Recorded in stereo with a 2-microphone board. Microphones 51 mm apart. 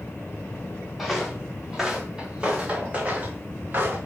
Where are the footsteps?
Centre (ahead or behind), 2 m; by 4.0 s 40° right (ahead or behind), 3 m.